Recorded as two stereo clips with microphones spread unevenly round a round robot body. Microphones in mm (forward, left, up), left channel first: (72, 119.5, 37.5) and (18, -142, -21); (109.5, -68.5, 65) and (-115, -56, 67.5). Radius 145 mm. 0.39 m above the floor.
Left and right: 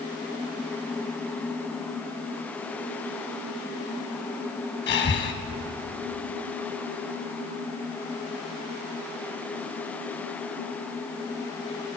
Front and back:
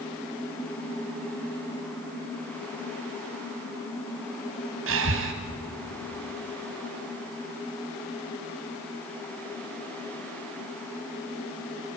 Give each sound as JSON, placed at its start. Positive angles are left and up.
{"t": 4.9, "sound": "breathing", "azimuth_deg": 140, "distance_m": 1.3}